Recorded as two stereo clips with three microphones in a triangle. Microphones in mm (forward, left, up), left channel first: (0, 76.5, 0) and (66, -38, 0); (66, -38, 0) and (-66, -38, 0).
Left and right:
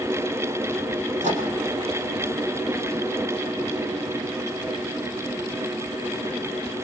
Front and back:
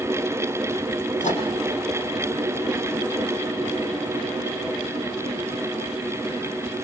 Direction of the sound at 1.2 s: 30° right.